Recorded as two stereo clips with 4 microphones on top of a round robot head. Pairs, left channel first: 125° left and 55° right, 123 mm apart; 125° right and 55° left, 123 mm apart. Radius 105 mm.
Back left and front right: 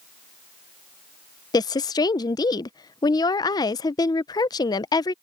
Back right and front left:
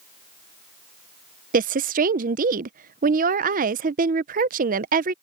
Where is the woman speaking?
65° left.